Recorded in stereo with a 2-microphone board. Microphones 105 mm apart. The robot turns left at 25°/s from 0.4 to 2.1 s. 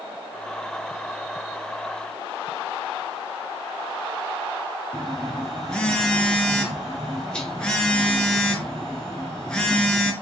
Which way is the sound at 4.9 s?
10° left (ahead or behind).